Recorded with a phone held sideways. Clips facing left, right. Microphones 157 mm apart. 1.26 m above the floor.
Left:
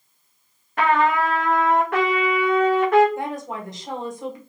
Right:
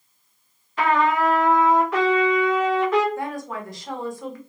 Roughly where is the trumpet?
Left.